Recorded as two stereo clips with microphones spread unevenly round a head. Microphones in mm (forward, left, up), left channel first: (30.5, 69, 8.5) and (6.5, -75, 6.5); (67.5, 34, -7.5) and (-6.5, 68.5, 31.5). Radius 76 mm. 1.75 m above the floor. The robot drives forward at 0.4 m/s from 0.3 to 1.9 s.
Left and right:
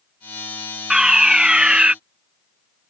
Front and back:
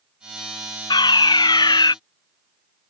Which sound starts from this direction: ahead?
A fire alarm, at 0.9 s.